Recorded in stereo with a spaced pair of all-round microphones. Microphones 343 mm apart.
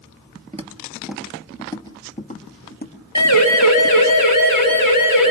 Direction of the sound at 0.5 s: 20° right (ahead or behind).